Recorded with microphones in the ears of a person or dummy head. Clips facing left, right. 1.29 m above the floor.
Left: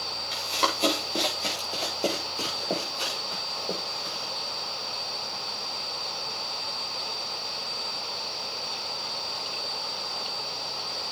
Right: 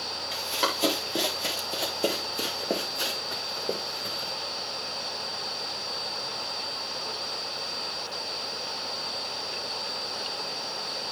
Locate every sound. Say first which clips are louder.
0.3 s running footsteps: left 1 dB; centre (ahead or behind), 3.5 m; by 4.3 s 30° right (ahead or behind), 4.5 m